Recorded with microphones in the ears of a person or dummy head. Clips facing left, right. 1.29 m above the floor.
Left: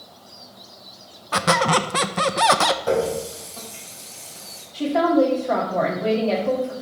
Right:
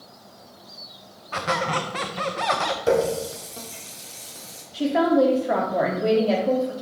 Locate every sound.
1.3 s a squeak: 60° left (ahead or behind), 0.7 m
2.9 s a running tap: 30° right (ahead or behind), 2 m
4.7 s a woman speaking: 5° right (ahead or behind), 2 m